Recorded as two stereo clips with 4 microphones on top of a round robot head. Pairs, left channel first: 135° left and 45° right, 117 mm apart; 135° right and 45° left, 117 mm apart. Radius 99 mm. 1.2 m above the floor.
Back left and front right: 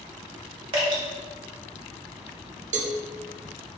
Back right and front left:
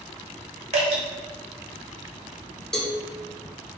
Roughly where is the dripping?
Ahead.